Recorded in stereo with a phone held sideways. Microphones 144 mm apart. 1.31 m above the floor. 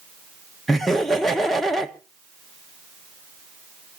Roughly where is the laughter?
Centre.